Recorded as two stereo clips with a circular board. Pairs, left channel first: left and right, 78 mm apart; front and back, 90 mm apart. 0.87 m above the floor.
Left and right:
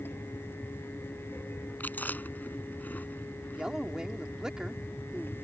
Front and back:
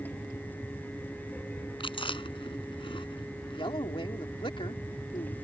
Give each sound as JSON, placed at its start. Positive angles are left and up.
{"t": 1.8, "sound": "chewing", "azimuth_deg": 20}
{"t": 3.6, "sound": "a man speaking", "azimuth_deg": -10}